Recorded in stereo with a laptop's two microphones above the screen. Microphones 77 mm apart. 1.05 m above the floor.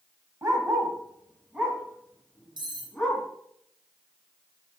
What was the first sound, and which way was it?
A dog barking, 35° right (ahead or behind).